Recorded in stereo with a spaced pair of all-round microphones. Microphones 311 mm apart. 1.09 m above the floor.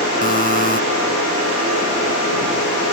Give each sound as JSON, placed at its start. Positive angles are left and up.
{"t": 0.2, "sound": "a buzzer", "side_deg": 25}